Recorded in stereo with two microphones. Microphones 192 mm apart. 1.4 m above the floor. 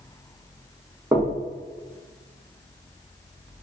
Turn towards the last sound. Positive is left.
turn(degrees=-20)  # may be behind; listen again after turning